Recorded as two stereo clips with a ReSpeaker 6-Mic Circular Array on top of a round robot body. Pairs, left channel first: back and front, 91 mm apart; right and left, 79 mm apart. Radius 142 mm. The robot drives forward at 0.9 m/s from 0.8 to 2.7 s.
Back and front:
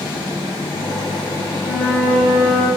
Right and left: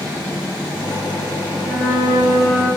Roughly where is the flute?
Right.